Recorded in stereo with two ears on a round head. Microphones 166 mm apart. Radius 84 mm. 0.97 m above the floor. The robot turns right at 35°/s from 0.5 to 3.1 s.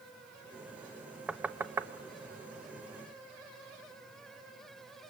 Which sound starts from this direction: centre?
Knocking, at 1.3 s.